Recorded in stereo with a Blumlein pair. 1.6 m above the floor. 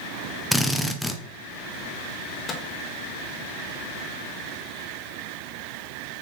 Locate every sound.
0.5 s a drill: 5° left, 0.7 m
2.5 s a microwave: 20° left, 0.8 m